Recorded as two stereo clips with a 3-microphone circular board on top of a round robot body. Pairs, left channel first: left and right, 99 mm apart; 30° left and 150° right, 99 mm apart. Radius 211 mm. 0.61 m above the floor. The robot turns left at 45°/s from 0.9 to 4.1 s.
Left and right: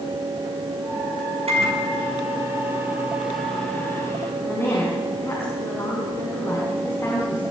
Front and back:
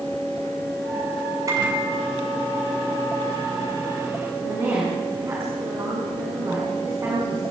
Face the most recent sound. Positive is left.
turn(degrees=150)